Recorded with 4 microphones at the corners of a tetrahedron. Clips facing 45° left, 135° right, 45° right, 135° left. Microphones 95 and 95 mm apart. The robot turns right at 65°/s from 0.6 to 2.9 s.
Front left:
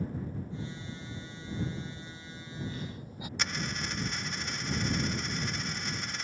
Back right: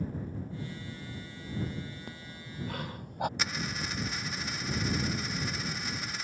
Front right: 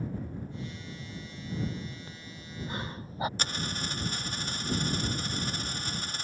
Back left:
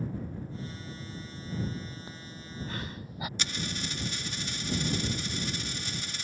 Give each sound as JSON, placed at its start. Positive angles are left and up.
{"t": 2.1, "sound": "breathing", "azimuth_deg": -155}
{"t": 3.4, "sound": "a dropped coin", "azimuth_deg": -50}